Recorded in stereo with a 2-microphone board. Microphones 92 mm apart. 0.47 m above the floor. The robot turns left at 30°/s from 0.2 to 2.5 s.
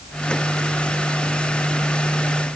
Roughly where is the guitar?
No guitar in this recording.